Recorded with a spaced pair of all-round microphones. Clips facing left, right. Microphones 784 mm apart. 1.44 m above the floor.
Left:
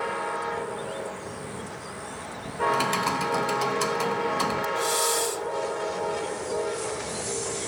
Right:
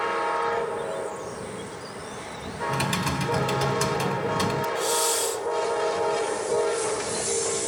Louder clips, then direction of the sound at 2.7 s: Right 1 dB; 65° right (ahead or behind).